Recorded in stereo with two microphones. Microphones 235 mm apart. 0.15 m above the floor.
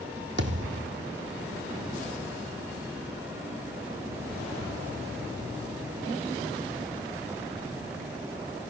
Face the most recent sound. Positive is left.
turn(degrees=-50)  # may be behind; listen again after turning